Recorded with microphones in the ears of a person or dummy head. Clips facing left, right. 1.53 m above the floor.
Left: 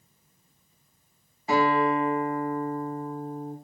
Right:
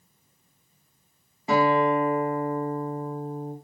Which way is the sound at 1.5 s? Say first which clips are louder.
Right 2 dB; 60° right (ahead or behind).